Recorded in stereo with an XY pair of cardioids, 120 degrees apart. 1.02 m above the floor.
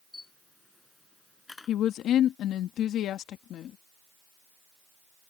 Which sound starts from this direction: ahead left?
A woman speaking, at 1.7 s.